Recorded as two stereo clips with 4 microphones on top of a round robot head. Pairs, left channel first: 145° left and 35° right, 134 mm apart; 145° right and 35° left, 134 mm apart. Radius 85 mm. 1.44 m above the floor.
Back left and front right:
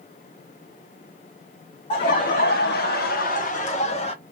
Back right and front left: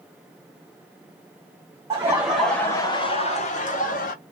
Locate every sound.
1.9 s laughter: 105° left, 1.0 m; by 4.1 s 165° right, 1.5 m